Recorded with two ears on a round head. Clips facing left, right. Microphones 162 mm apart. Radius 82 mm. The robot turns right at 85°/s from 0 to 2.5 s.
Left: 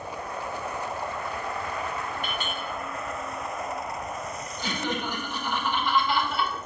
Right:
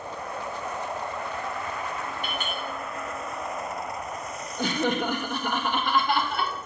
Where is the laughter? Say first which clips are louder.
Right 6 dB; 45° right (ahead or behind), 0.9 m.